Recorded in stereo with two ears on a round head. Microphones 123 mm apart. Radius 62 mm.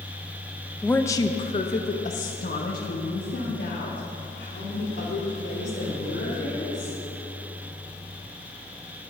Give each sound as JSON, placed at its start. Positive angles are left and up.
{"t": 0.8, "sound": "a woman speaking", "side_deg": 5, "distance_m": 0.5}